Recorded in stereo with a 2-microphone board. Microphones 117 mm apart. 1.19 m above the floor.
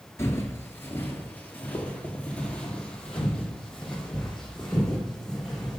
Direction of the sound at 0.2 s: 25° left (ahead or behind).